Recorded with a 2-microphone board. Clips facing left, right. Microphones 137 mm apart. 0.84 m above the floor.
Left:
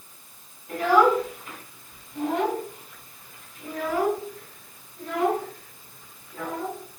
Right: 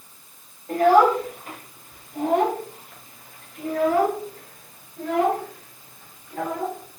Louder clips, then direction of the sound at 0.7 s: Right 3 dB; 50° right (ahead or behind).